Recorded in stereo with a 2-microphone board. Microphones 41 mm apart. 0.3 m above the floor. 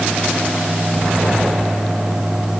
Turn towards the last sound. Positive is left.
No sound to turn to.